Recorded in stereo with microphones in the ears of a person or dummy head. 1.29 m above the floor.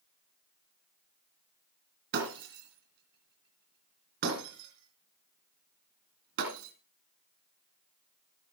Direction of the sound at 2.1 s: 65° right (ahead or behind).